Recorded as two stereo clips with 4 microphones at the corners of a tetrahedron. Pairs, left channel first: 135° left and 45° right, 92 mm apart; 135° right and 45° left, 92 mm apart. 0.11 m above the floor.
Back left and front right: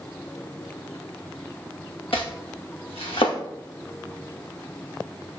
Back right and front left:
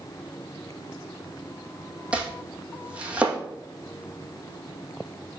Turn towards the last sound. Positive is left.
turn(degrees=120)